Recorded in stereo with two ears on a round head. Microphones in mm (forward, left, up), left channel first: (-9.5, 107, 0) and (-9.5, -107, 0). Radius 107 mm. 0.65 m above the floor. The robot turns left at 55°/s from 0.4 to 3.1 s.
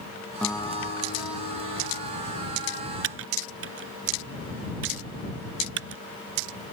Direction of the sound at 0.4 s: 175° left.